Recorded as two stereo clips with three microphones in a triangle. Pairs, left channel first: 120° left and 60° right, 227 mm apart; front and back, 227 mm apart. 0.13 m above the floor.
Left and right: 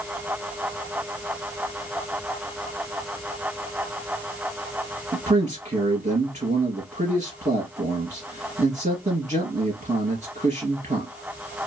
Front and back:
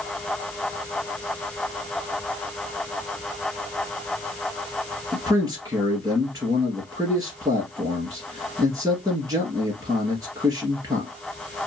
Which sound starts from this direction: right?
A man speaking, at 5.1 s.